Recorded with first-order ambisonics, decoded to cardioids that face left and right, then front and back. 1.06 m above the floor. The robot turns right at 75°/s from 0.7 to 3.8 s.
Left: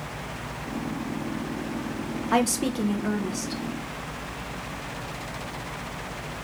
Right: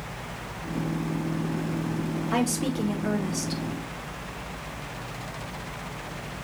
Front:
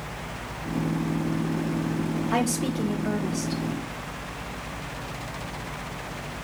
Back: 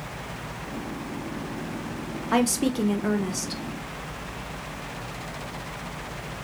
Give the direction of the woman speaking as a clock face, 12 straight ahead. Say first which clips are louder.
Left 4 dB, back 4 dB; 8 o'clock.